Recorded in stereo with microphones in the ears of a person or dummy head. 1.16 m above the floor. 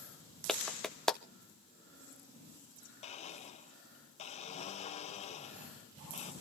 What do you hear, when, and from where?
0.5 s a clap: centre (ahead or behind), 0.5 m
3.0 s a blender: 25° left (ahead or behind), 1.1 m